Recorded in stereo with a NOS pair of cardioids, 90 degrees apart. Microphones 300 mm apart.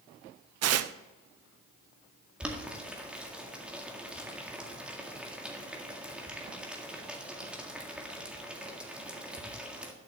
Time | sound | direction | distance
0.6 | tearing paper | 60° right | 0.6 m
2.4 | boiling | 5° right | 1.9 m